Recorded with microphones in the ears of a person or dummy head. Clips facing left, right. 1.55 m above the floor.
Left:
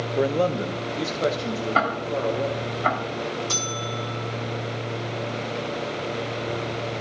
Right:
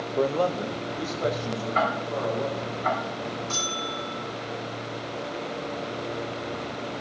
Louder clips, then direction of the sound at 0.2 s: Left 2 dB; 10° left (ahead or behind).